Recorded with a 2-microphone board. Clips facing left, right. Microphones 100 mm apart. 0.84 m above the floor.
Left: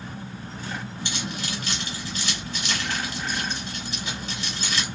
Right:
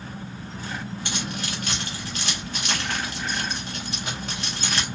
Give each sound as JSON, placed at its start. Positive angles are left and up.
{"t": 1.1, "sound": "keys jangling", "side_deg": -60, "distance_m": 3.0}